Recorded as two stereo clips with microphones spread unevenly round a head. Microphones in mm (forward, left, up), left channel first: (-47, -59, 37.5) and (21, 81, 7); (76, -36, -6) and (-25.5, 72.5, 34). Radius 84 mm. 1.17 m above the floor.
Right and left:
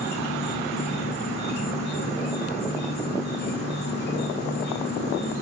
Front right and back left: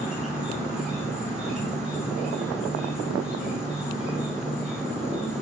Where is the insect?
135° right, 4 m.